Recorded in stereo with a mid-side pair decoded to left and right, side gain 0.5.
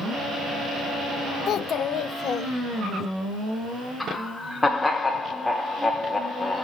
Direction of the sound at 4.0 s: 15° left.